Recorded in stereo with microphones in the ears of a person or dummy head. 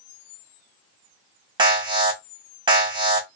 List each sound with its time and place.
1.6 s an alarm: 25° right (ahead or behind), 1.2 m